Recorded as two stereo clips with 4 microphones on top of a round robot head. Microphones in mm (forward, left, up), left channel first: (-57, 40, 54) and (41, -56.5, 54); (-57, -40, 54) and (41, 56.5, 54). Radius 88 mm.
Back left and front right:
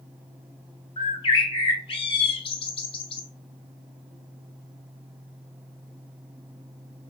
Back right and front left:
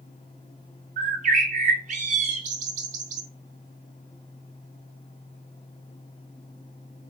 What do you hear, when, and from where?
1.0 s a bird: 80° left, 0.5 m